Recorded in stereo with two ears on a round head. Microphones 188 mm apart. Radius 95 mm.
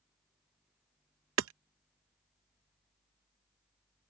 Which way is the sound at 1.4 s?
70° right (ahead or behind).